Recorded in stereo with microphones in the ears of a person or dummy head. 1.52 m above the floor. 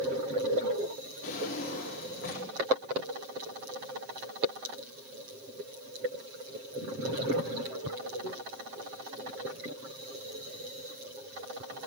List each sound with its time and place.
1.2 s a drawer: 50° left (ahead or behind), 1.7 m